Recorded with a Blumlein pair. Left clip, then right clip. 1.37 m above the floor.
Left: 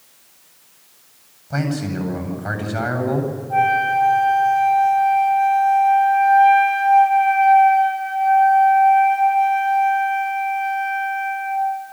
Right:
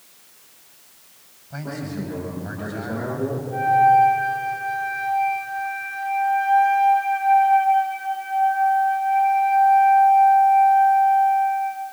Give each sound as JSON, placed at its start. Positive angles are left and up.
{"t": 1.5, "sound": "a man speaking", "azimuth_deg": 55, "distance_m": 9.0}
{"t": 3.5, "sound": "a flute", "azimuth_deg": 40, "distance_m": 9.5}